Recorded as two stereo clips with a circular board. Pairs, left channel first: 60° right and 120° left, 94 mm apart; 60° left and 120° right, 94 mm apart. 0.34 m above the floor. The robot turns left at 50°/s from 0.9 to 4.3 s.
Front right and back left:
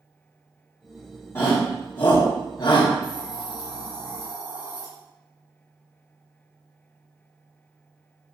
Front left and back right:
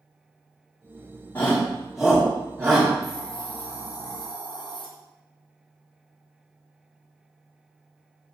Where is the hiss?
150° left, 4.5 m; by 4.8 s 85° left, 4.5 m.